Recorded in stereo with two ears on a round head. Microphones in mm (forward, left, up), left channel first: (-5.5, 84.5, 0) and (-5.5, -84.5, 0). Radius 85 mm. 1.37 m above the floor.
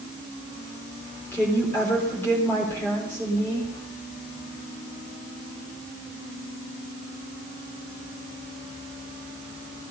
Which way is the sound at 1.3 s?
15° left (ahead or behind).